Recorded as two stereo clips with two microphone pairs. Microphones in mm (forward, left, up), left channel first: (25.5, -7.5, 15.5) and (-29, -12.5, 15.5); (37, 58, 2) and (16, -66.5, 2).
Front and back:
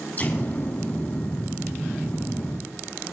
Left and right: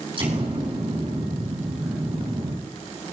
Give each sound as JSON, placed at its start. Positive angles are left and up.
{"t": 0.2, "sound": "an explosion", "azimuth_deg": -50, "distance_m": 5.0}